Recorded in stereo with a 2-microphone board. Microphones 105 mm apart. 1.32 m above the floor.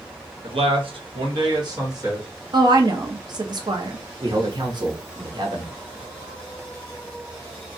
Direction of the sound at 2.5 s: 45° right (ahead or behind).